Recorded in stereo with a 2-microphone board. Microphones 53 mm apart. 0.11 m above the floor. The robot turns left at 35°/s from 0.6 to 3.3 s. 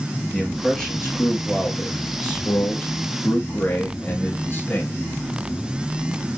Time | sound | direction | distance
0.3 | a man speaking | 170° left | 2.0 m